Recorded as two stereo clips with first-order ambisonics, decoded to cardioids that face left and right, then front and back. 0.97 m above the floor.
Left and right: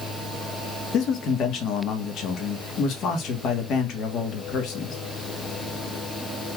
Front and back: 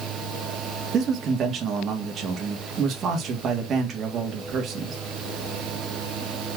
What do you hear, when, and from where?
0.9 s a man speaking: 125° left, 1.3 m